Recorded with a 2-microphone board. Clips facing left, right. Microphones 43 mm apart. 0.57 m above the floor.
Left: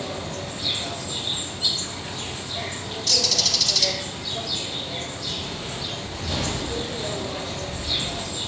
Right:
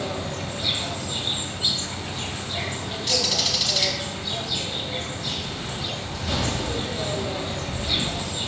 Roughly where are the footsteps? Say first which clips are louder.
Right 1 dB; left.